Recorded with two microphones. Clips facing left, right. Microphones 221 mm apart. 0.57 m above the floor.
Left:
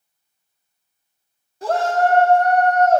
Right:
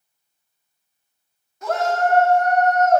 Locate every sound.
1.6 s a shout: 30° left (ahead or behind), 0.9 m